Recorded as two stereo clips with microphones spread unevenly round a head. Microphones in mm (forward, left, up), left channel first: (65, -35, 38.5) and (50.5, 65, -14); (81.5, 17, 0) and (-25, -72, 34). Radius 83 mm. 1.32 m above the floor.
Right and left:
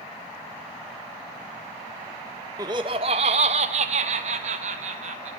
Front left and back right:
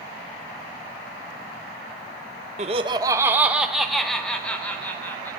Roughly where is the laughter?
Behind.